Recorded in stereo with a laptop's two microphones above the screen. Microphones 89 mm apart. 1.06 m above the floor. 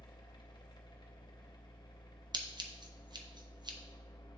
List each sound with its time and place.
0.0 s a machine running: 55° left (ahead or behind), 0.7 m
2.3 s scissors: 55° right (ahead or behind), 0.6 m